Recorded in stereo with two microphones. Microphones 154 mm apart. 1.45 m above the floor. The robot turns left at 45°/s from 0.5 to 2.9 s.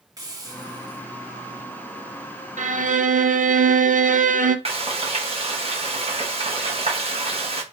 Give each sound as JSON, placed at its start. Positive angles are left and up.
{"t": 0.2, "sound": "a hiss", "side_deg": -25, "distance_m": 1.1}
{"t": 2.6, "sound": "a violin", "side_deg": -60, "distance_m": 0.5}
{"t": 4.7, "sound": "frying", "side_deg": -45, "distance_m": 1.0}